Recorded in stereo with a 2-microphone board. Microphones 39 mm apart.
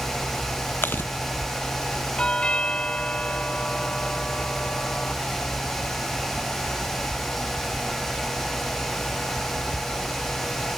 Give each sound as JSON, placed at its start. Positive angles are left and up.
{"t": 0.8, "sound": "chewing", "side_deg": 55}
{"t": 2.2, "sound": "a doorbell", "side_deg": 25}